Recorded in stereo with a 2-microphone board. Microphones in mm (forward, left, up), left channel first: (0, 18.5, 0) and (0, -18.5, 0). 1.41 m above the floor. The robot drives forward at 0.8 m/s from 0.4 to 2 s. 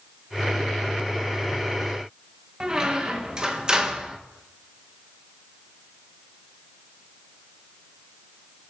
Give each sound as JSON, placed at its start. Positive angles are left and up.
{"t": 2.6, "sound": "a squeak", "side_deg": -25, "distance_m": 0.8}